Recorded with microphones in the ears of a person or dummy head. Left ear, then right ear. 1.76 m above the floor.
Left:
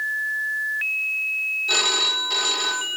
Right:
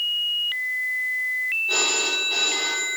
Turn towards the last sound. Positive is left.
turn(degrees=40)  # may be behind; listen again after turning